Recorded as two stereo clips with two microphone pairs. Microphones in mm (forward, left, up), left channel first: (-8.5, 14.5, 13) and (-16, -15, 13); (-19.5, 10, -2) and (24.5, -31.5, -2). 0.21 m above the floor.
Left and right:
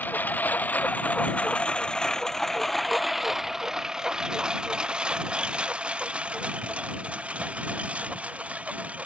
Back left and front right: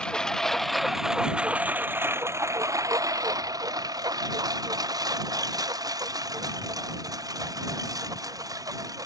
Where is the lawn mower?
60° left; by 9.1 s 65° right.